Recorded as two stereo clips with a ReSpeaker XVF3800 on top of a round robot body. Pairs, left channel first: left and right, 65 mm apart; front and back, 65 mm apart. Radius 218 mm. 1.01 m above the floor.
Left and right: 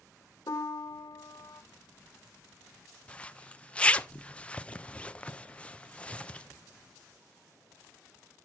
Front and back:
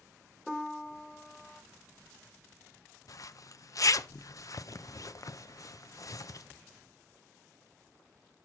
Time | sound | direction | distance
0.5 | a piano | 85° left | 1.0 m
3.1 | a zipper | 20° left | 0.7 m